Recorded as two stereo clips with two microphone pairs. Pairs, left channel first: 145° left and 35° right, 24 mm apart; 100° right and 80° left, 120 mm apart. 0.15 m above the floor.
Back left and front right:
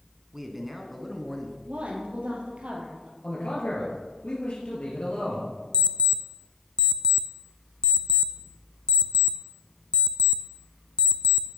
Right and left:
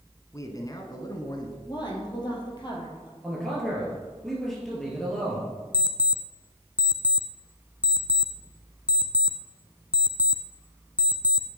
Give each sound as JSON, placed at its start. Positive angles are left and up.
{"t": 0.3, "sound": "a man speaking", "azimuth_deg": -95, "distance_m": 1.5}
{"t": 1.7, "sound": "a woman speaking", "azimuth_deg": -50, "distance_m": 3.5}
{"t": 3.2, "sound": "a man speaking", "azimuth_deg": 175, "distance_m": 3.5}
{"t": 5.7, "sound": "an alarm clock", "azimuth_deg": 140, "distance_m": 0.6}